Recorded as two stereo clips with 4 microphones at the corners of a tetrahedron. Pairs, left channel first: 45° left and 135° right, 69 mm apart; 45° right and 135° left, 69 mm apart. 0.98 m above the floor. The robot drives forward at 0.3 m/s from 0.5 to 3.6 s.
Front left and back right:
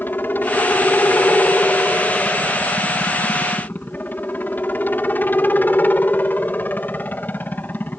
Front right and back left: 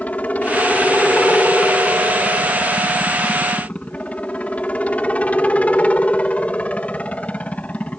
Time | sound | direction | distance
0.0 | a helicopter | 5° left | ?